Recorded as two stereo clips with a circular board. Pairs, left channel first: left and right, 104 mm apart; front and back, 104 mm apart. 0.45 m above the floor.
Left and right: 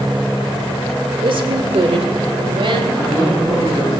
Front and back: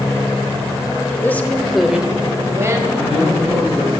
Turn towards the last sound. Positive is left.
turn(degrees=-175)